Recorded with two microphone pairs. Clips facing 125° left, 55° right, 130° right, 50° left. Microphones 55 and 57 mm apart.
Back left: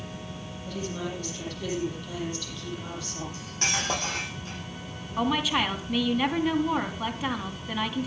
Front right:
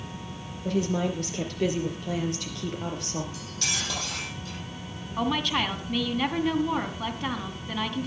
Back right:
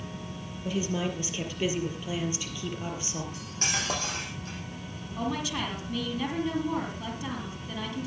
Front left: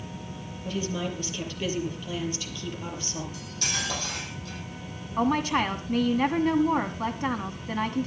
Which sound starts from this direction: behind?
Cutlery clinking, at 3.3 s.